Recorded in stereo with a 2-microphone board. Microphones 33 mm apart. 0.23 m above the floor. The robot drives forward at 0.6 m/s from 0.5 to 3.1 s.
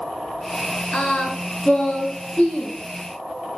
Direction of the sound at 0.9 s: 40° left (ahead or behind).